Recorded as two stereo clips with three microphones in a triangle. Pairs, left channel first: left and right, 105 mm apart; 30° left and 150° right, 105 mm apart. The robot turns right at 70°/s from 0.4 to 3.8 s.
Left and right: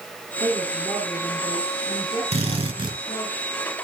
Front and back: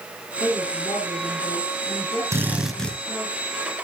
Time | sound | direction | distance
0.4 | a woman speaking | 50° right | 7.5 m
2.3 | a drill | 90° right | 5 m